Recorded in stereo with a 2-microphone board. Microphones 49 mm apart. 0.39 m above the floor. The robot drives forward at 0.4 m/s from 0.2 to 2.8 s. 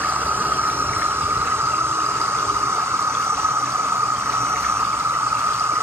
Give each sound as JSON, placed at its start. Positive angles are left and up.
{"t": 0.0, "sound": "an insect", "side_deg": -45}